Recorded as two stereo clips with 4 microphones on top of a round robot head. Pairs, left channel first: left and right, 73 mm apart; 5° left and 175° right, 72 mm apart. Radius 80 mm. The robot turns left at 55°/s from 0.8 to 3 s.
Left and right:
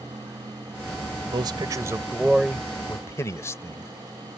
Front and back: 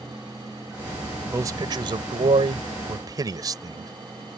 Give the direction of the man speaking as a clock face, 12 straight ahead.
4 o'clock.